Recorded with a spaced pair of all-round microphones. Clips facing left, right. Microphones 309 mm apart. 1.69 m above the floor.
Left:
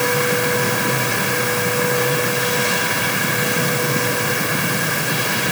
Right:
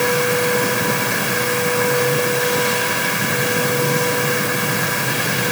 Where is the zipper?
I don't hear a zipper.